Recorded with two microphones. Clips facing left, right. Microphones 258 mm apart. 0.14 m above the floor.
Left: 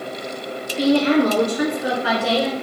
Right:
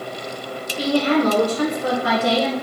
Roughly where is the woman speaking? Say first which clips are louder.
Left 3 dB; left.